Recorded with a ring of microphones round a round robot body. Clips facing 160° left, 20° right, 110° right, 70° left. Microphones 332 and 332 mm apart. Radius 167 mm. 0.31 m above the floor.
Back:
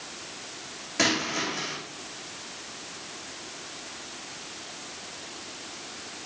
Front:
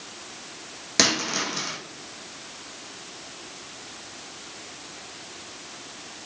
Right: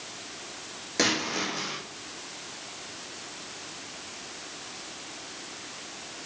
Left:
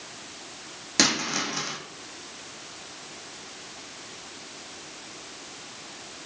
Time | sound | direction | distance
1.0 | a dropped coin | 5° left | 3.5 m